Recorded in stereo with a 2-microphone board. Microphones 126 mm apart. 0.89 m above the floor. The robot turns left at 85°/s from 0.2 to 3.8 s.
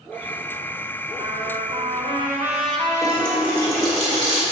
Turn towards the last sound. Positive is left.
turn(degrees=-40)